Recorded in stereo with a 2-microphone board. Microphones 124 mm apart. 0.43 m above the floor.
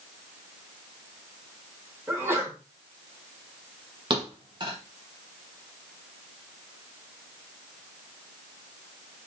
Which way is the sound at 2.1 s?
20° right (ahead or behind).